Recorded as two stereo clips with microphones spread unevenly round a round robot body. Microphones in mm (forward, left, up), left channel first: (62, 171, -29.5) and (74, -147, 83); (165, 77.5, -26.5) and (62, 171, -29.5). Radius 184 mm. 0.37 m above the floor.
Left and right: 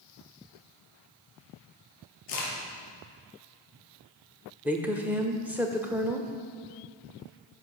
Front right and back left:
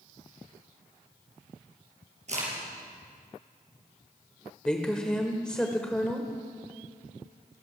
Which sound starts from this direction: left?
A crack, at 2.3 s.